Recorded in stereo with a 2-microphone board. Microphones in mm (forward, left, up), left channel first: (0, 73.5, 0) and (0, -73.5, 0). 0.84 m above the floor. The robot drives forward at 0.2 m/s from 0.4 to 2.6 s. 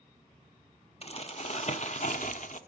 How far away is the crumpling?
About 0.7 m.